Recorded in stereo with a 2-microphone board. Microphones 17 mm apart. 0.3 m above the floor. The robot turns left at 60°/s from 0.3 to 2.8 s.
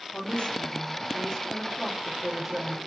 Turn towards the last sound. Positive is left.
turn(degrees=-45)